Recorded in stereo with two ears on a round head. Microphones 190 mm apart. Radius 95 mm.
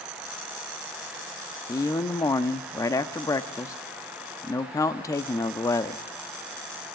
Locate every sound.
1.7 s a man speaking: 15° left (ahead or behind), 0.6 m